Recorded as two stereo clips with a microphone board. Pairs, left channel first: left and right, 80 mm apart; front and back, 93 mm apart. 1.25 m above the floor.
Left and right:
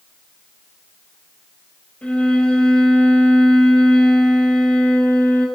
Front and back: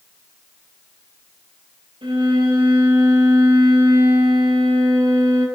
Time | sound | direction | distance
2.0 | a violin | 165° left | 6 m